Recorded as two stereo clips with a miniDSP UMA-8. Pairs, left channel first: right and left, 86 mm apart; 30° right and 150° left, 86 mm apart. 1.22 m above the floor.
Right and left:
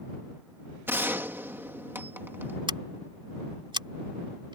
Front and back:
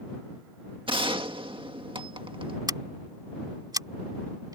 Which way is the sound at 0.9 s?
155° left.